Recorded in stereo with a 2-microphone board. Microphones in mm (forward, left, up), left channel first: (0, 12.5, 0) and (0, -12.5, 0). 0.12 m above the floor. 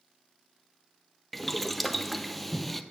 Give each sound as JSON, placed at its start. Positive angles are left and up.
{"t": 1.3, "sound": "boiling", "side_deg": 5, "distance_m": 0.5}